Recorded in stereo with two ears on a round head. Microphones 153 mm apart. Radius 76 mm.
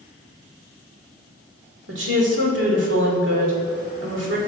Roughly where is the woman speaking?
Right.